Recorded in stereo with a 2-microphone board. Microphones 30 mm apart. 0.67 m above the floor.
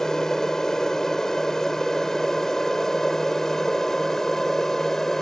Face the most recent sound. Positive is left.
turn(degrees=15)  # may be behind; listen again after turning